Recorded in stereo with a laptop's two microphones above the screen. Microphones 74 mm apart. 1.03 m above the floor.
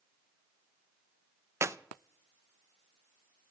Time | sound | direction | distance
1.6 | a clap | 35° right (ahead or behind) | 0.5 m